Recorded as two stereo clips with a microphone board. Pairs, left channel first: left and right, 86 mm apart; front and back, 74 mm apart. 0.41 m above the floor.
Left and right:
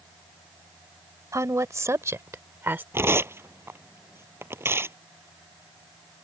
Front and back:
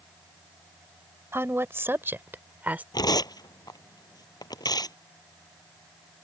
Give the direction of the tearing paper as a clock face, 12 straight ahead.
1 o'clock.